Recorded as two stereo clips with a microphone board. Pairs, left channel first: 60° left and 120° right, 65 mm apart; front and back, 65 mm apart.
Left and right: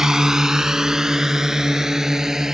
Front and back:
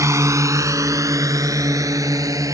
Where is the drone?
160° left.